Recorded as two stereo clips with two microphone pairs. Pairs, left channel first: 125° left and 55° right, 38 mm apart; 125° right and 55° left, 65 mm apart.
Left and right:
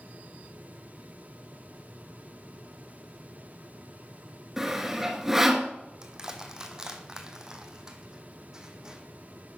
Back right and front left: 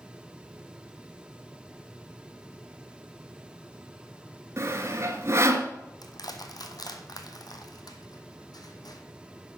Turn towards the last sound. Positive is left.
turn(degrees=-130)